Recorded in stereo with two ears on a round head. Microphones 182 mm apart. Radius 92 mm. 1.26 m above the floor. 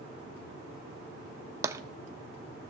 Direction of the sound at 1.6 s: 15° right (ahead or behind).